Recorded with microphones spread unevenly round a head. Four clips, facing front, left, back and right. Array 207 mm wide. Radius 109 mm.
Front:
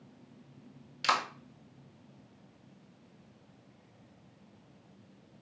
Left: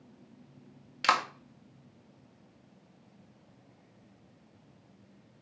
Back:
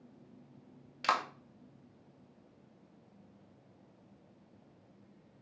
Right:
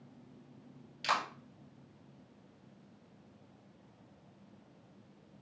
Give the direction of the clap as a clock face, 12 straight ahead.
9 o'clock.